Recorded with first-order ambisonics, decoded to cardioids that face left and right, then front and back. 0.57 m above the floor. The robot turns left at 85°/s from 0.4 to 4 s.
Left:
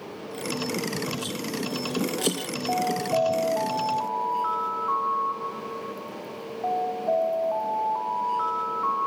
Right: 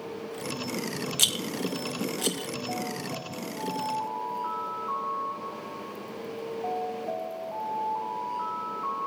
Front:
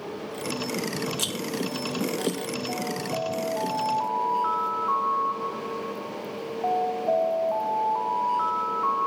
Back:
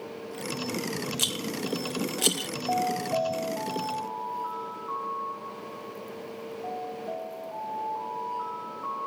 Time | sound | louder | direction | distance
1.2 | a rattle | right 4 dB, front 1 dB | 95° right | 1.2 m
2.7 | an alarm | left 13 dB, back 7 dB | 140° left | 1.6 m